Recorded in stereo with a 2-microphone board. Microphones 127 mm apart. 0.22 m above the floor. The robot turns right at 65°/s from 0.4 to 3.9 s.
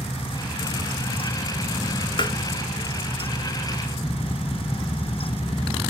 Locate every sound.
2.2 s tapping: 40° left (ahead or behind), 0.9 m; by 2.4 s 35° left (ahead or behind), 0.9 m